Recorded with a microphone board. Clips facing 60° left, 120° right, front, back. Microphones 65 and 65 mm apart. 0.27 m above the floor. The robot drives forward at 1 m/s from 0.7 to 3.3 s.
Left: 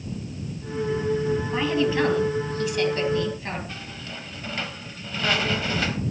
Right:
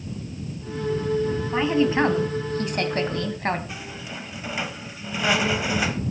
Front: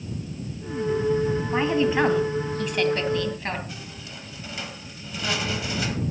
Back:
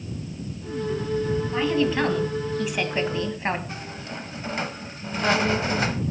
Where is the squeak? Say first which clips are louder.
Right 2 dB, back 5 dB; 170° left, 0.9 m.